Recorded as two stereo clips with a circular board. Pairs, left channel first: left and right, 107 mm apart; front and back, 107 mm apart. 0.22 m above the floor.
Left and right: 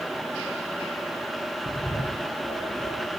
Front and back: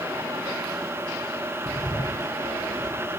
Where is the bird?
55° left, 1.6 m.